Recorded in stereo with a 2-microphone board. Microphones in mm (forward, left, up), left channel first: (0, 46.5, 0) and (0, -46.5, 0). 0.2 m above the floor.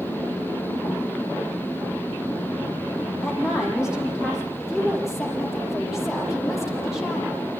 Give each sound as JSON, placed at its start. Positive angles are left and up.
{"t": 3.2, "sound": "a woman speaking", "side_deg": -5, "distance_m": 9.0}
{"t": 4.6, "sound": "a woman speaking", "side_deg": -5, "distance_m": 6.5}